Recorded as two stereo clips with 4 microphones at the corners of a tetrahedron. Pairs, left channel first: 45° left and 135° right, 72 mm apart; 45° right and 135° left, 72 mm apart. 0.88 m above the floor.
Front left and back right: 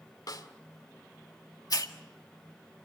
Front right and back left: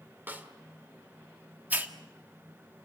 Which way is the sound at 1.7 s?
75° left.